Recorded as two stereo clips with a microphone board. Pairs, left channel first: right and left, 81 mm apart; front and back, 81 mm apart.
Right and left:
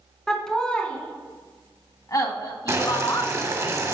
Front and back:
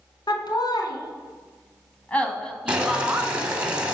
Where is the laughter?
5° right, 1.9 m; by 3.3 s 110° right, 1.7 m.